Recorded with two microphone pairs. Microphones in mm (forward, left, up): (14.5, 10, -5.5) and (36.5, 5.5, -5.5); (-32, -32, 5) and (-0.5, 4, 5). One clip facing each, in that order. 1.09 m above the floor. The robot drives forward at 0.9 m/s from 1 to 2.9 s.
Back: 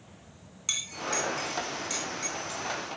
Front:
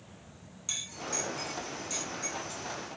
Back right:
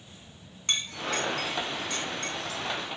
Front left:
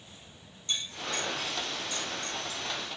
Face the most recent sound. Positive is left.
turn(degrees=-145)